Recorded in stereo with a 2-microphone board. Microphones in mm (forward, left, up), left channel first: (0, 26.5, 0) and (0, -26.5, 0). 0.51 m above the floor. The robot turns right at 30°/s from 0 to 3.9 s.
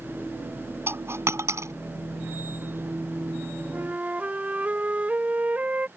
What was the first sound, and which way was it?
A dropped coin, 55° right (ahead or behind).